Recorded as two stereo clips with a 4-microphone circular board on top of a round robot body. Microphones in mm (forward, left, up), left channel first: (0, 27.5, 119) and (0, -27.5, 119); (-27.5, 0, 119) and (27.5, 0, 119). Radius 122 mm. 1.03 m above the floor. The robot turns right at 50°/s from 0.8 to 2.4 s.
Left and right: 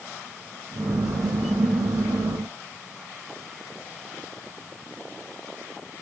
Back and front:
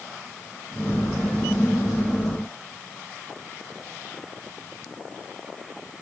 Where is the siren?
No siren in this recording.